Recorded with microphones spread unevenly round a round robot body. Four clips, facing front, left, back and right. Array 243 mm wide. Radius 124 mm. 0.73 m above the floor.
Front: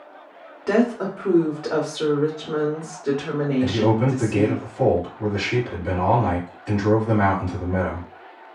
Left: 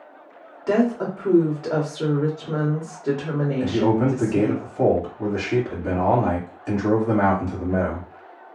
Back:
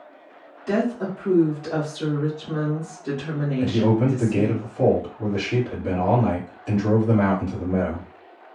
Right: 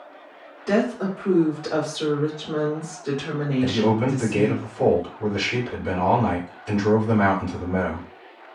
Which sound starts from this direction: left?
A man speaking, at 3.6 s.